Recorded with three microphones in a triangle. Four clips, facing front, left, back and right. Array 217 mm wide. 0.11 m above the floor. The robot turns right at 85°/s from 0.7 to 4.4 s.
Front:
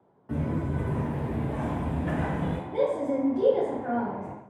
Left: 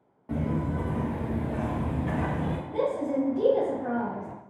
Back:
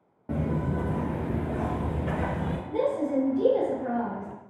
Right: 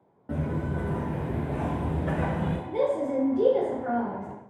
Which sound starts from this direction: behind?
Footsteps, at 0.3 s.